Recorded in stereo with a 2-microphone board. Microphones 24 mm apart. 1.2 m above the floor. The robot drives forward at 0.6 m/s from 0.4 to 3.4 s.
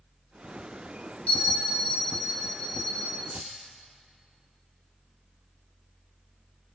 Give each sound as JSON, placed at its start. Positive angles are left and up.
{"t": 1.3, "sound": "a bell", "side_deg": 80, "distance_m": 2.0}
{"t": 3.3, "sound": "keys jangling", "side_deg": -60, "distance_m": 1.7}